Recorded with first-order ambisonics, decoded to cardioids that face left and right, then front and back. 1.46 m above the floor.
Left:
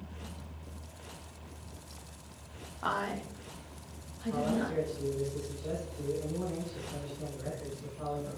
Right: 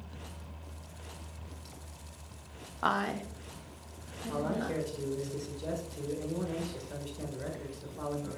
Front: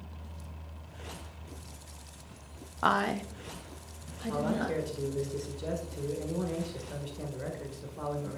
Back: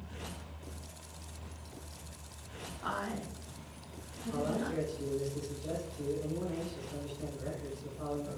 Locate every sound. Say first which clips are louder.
2.8 s a woman speaking: right 3 dB, front 10 dB; 25° right, 0.5 m; by 4.8 s 5° right, 1.9 m
4.3 s a man speaking: left 1 dB, front 3 dB; 35° right, 1.6 m